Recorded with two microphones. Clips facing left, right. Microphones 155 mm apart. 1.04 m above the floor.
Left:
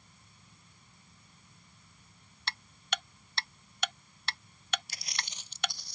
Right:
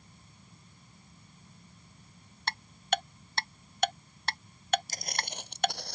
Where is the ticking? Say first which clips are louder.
Right 8 dB; 45° right (ahead or behind).